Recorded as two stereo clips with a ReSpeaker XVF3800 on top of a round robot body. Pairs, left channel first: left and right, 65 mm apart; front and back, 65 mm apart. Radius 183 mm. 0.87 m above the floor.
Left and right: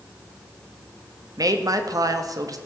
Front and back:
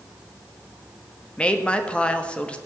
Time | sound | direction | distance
1.4 | a woman speaking | 70° right | 1.9 m